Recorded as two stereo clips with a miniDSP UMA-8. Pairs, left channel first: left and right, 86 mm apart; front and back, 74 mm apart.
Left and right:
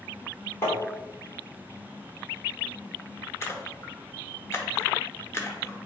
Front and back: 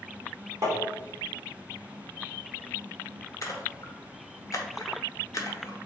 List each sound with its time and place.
0.6 s tapping: 140° left, 1.1 m
3.4 s a splash: 35° left, 0.7 m